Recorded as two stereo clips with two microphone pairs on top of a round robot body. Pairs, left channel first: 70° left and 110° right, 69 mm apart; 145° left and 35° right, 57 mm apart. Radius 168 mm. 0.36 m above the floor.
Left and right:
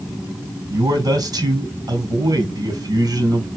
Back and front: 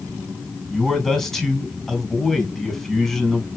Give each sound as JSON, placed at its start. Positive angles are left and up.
{"t": 0.7, "sound": "a man speaking", "azimuth_deg": -130, "distance_m": 3.5}